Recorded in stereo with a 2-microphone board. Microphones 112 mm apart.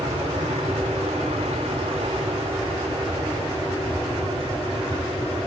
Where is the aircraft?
70° right (ahead or behind); by 5.5 s 50° right (ahead or behind).